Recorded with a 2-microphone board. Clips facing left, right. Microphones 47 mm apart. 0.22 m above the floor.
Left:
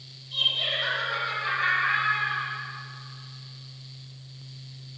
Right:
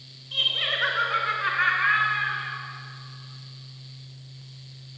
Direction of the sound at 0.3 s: 60° right (ahead or behind).